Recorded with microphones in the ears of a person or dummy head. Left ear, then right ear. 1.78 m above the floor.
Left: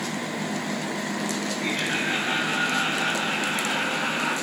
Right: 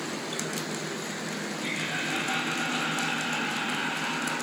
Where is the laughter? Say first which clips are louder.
Left 5 dB; 25° left (ahead or behind), 3.5 m; by 4.3 s 60° left (ahead or behind), 3.5 m.